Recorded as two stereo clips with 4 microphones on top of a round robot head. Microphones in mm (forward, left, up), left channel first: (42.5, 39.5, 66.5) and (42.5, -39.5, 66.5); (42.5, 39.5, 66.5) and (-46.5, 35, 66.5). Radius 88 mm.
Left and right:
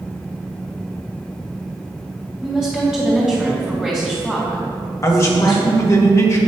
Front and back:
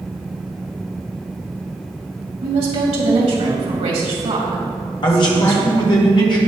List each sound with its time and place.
2.4 s a woman speaking: 175° right, 2.5 m
5.0 s a man speaking: 40° left, 1.9 m